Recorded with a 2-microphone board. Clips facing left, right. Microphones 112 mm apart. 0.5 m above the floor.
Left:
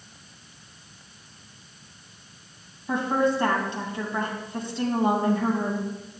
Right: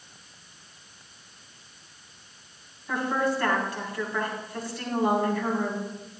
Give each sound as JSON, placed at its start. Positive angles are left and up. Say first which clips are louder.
{"t": 2.9, "sound": "a woman speaking", "louder": "left 3 dB", "side_deg": 25, "distance_m": 3.0}